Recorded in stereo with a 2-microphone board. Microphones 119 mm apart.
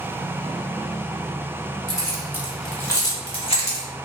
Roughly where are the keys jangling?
Right.